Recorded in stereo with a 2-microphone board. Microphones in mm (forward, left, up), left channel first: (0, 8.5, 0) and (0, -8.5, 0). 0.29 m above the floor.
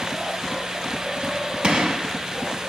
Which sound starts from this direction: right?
A gunshot, at 1.6 s.